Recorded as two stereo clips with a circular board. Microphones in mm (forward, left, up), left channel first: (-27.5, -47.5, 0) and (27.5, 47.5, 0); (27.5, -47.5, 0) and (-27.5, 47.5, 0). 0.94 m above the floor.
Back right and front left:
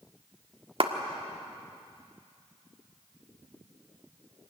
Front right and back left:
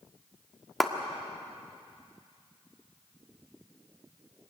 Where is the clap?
30° left, 1.5 m.